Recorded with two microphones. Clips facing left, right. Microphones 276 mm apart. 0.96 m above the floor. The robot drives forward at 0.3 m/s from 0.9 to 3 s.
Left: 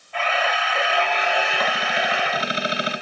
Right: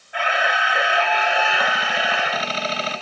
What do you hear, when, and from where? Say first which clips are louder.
0.1 s a camera shutter: even; 10° right (ahead or behind), 0.7 m; by 2.5 s 5° right (ahead or behind), 1.1 m